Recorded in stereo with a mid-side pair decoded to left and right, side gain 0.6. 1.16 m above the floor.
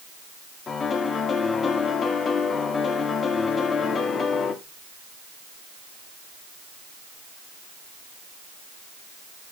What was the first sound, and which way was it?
A piano, 35° left.